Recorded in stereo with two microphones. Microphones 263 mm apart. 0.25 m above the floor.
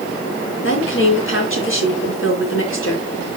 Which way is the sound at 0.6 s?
50° left (ahead or behind).